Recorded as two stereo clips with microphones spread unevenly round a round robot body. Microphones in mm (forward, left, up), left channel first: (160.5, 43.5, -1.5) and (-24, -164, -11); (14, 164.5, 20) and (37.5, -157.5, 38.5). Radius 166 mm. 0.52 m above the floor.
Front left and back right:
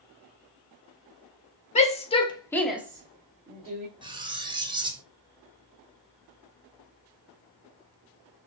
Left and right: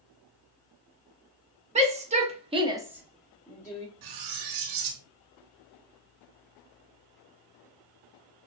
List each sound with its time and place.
1.8 s a shout: 15° right, 1.5 m; by 3.9 s 170° left, 1.6 m
4.0 s cutlery clinking: 60° right, 0.8 m